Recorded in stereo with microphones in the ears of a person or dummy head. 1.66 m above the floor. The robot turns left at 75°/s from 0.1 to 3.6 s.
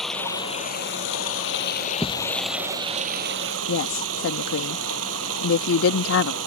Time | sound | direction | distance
0.0 | running water | 175° right | ?
2.0 | a thud | centre (ahead or behind) | ?
3.7 | a woman speaking | 70° left (ahead or behind) | ?